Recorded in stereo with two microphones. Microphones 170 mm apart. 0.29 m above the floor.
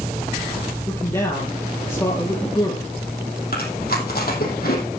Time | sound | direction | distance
0.9 | a man speaking | 20° left (ahead or behind) | 5.5 m
3.5 | chewing | 65° left (ahead or behind) | 4.5 m